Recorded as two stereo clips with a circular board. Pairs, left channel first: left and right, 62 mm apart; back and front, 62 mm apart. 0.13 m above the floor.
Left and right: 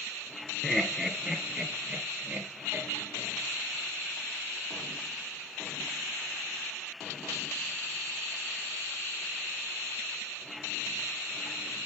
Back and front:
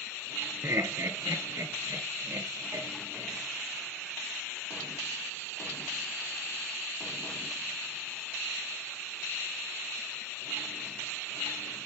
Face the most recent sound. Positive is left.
turn(degrees=-35)